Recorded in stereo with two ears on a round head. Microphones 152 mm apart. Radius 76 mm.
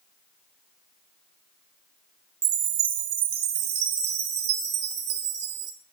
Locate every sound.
2.4 s a chime: 65° right (ahead or behind), 1.0 m